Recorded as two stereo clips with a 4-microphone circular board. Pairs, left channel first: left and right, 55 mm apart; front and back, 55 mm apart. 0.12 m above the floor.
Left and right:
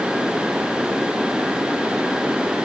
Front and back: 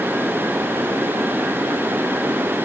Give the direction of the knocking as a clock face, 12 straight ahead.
I don't hear knocking.